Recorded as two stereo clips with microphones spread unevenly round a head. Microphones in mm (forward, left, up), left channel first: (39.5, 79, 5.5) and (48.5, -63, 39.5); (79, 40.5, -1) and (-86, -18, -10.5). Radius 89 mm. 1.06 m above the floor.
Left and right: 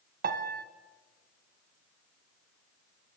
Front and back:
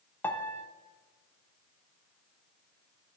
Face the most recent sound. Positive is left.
turn(degrees=-60)